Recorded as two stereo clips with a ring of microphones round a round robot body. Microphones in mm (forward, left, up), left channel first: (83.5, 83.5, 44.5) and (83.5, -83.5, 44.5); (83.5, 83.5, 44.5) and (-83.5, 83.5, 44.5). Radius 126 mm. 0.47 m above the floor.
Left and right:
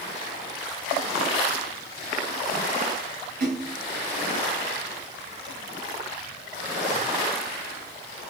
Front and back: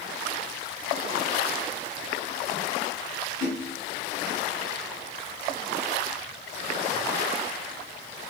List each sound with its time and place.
3.4 s a splash: 60° right, 4.5 m